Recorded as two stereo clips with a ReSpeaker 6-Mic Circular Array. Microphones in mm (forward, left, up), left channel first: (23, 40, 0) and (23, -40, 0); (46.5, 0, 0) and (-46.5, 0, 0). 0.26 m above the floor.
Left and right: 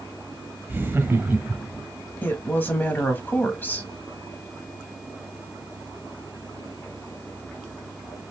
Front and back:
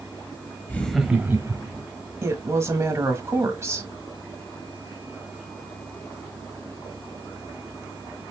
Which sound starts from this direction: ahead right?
Laughter, at 0.7 s.